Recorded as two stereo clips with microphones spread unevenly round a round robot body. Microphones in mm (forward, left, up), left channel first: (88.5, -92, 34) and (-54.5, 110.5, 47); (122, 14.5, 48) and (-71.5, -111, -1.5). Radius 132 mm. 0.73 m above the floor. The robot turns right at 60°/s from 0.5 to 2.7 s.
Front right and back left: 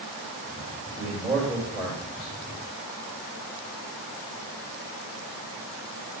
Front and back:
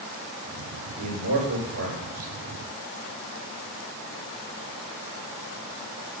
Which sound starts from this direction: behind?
A man speaking, at 1.0 s.